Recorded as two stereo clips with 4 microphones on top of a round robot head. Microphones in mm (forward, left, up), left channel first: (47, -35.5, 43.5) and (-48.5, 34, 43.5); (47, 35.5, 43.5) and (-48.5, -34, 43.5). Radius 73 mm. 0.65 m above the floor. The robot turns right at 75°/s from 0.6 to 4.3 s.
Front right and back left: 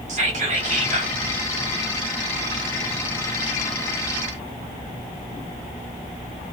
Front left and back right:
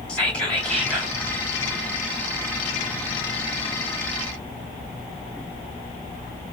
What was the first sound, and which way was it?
Whispering, 120° left.